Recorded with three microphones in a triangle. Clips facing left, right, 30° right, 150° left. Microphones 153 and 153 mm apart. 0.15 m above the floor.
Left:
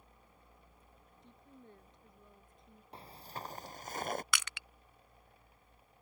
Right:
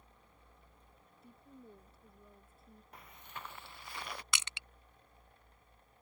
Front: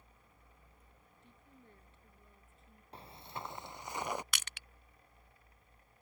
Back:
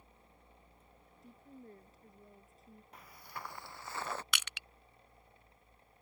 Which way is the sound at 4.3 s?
35° right.